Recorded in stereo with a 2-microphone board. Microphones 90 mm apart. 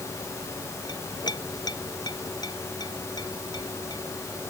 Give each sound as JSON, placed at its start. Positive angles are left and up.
{"t": 0.9, "sound": "a clink", "side_deg": 50}